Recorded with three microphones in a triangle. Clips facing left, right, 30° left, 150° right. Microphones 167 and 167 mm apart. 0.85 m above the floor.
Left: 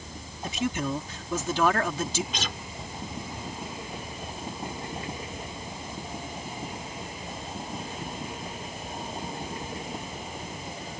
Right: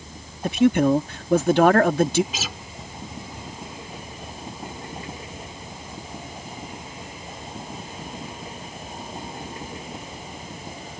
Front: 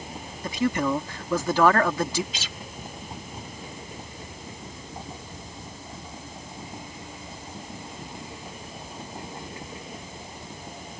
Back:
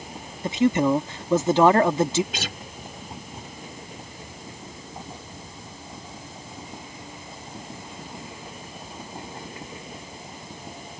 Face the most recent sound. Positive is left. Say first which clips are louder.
# right 1 dB, back 6 dB
turn(degrees=-175)